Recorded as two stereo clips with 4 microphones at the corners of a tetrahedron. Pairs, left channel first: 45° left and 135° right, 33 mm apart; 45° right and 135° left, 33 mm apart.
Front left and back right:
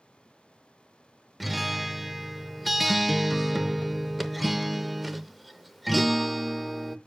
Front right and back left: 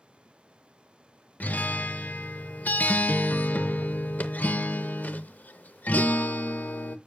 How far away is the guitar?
About 0.5 m.